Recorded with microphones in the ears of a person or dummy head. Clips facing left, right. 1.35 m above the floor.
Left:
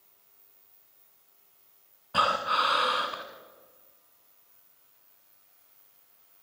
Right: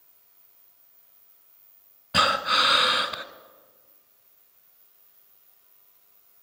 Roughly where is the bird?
No bird in this recording.